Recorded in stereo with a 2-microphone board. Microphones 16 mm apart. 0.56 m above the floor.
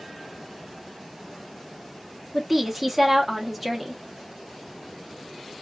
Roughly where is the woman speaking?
Centre.